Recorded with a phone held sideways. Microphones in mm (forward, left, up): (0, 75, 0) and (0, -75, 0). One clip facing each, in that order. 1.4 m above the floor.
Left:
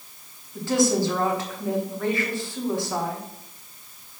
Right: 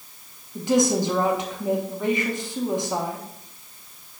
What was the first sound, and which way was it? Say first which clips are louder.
A woman speaking: right 1 dB; 15° right (ahead or behind).